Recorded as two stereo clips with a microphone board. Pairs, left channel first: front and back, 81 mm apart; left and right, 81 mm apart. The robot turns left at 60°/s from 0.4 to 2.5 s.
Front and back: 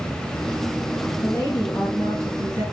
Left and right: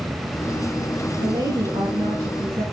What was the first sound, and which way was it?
A woman speaking, 60° right.